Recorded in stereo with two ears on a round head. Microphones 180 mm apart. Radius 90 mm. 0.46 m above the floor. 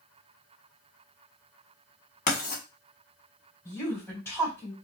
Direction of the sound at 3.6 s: 15° left (ahead or behind).